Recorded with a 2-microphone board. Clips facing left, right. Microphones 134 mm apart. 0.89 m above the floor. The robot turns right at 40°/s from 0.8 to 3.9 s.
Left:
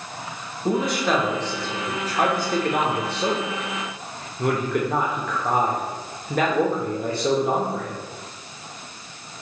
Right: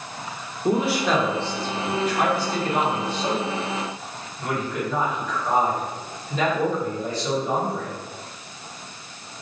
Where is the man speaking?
10° right (ahead or behind), 0.7 m; by 8.0 s 60° left (ahead or behind), 0.7 m.